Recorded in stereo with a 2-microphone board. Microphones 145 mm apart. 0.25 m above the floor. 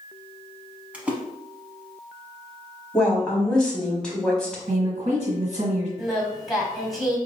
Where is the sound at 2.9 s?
5° left (ahead or behind), 1.2 m.